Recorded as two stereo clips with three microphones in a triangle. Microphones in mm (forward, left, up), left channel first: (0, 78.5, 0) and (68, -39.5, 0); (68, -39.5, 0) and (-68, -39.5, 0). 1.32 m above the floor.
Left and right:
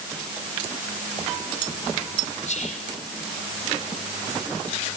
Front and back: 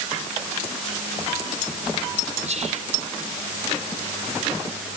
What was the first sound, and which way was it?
Whispering, 150° left.